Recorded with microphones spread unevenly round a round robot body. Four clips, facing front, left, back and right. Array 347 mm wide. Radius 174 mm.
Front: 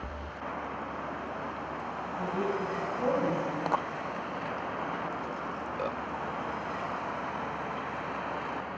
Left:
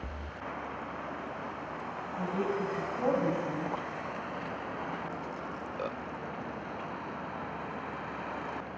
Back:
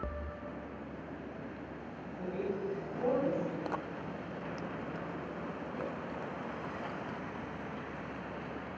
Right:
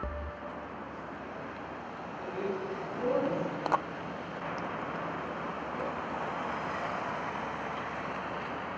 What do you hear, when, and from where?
2.2 s a woman speaking: 90° left, 5 m